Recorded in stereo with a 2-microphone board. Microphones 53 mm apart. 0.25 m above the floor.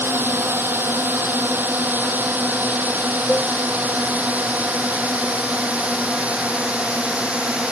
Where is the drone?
45° right (ahead or behind); by 7.7 s 20° right (ahead or behind).